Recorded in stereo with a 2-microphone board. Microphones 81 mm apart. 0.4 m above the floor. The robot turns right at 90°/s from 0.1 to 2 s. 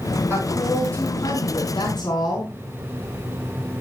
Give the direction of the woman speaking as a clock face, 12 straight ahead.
1 o'clock.